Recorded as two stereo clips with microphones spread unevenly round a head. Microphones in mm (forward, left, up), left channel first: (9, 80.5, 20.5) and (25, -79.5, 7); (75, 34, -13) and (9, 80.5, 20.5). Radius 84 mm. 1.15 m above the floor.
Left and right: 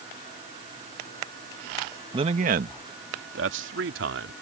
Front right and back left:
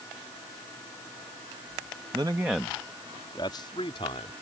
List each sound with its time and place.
2.1 s a man speaking: 145° right; by 4.3 s 85° right